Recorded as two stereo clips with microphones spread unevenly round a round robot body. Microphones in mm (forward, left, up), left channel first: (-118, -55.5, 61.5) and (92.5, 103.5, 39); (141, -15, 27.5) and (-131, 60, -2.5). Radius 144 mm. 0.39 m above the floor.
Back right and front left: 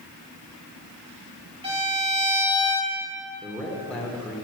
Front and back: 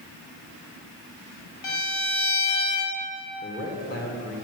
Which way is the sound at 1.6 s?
35° right.